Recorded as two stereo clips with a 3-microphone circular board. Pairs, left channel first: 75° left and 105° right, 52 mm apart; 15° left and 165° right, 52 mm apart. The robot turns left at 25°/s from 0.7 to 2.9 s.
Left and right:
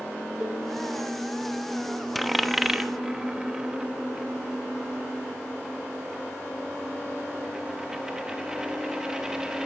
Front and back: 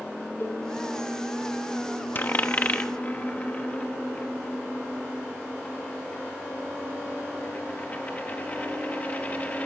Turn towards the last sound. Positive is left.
turn(degrees=-30)